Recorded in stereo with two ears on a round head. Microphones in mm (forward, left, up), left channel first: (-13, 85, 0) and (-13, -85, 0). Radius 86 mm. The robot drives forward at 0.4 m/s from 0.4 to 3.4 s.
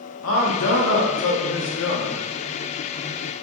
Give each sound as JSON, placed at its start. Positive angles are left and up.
{"t": 0.2, "sound": "a man speaking", "side_deg": 80, "distance_m": 1.1}